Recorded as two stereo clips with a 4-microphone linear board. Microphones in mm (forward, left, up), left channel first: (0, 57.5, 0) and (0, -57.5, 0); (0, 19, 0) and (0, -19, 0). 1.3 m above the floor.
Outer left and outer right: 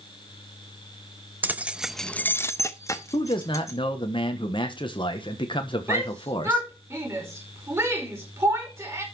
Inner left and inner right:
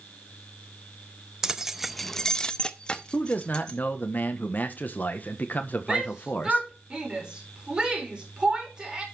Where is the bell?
No bell in this recording.